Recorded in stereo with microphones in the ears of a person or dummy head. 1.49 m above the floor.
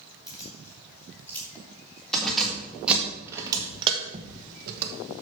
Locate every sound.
0.3 s keys jangling: 15° left (ahead or behind), 3 m; by 4.9 s 55° right (ahead or behind), 1.0 m